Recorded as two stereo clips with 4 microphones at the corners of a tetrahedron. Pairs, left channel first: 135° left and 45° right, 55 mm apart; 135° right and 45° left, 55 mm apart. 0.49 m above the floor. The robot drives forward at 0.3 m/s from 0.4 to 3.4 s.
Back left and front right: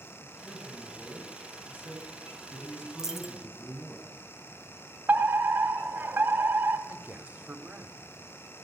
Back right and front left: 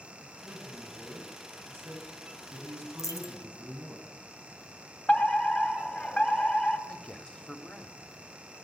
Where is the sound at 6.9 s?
75° right, 1.3 m.